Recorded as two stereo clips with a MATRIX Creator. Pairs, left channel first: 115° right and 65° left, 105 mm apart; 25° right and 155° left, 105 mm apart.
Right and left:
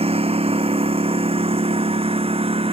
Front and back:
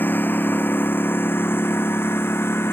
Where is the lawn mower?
50° left; by 2.7 s 45° left.